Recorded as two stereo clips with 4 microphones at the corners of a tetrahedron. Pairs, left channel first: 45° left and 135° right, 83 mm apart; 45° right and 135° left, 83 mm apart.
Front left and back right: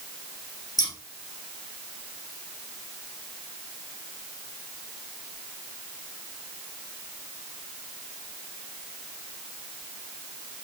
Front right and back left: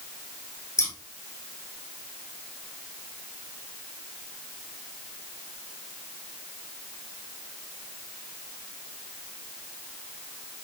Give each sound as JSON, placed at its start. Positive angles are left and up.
{"t": 0.8, "sound": "scissors", "azimuth_deg": 10, "distance_m": 2.5}